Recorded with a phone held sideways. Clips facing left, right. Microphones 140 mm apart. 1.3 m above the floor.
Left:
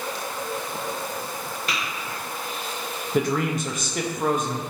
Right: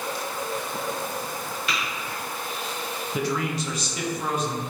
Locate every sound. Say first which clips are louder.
1.7 s tapping: even; 45° left (ahead or behind), 1.6 m
3.1 s a man speaking: left 4 dB; 55° left (ahead or behind), 0.5 m